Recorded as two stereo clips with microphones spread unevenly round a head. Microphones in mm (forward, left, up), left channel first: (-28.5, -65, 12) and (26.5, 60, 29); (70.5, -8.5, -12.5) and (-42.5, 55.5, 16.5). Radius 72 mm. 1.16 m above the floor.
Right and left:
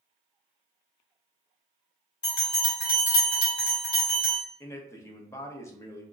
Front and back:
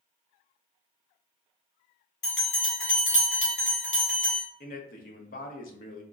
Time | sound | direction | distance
2.2 | a bell | 55° right | 1.5 m
4.6 | a man speaking | 45° right | 0.6 m